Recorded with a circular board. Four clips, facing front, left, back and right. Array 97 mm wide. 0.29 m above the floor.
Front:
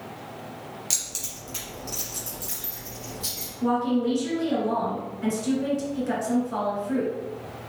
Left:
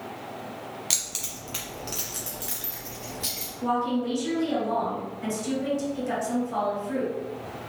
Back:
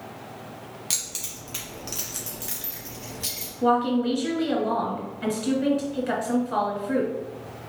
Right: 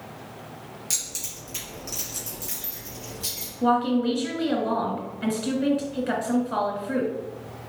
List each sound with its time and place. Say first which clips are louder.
0.9 s keys jangling: left 2 dB, even; 110° left, 1.3 m; by 3.5 s 145° left, 3 m
3.6 s a woman speaking: right 4 dB, back 2 dB; 130° right, 1.6 m